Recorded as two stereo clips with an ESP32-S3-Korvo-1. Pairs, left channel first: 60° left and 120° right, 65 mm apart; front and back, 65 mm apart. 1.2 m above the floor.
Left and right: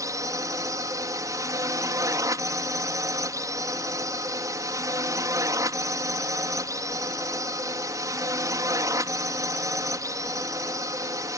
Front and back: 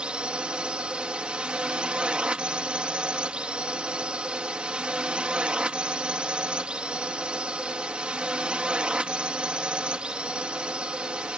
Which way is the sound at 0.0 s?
110° right.